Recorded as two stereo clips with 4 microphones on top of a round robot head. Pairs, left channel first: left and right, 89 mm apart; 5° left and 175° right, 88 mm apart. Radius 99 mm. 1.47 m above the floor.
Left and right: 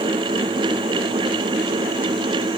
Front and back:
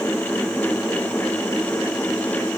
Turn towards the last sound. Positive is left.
No sound to turn to.